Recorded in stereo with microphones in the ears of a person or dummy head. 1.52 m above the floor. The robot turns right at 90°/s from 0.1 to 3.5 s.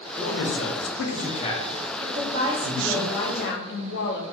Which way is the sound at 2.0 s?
70° right.